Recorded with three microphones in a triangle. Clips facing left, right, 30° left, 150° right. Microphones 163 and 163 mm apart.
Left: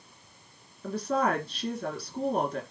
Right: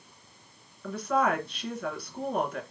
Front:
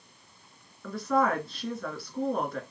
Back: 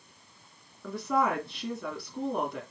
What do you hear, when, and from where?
0.8 s a woman speaking: 140° left, 2 m